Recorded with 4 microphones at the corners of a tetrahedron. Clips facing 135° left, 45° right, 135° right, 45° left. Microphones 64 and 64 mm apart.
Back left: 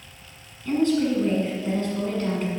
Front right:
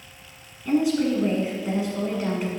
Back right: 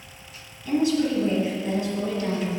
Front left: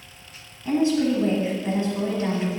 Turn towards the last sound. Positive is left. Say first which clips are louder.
# even, front left 1 dB
turn(degrees=25)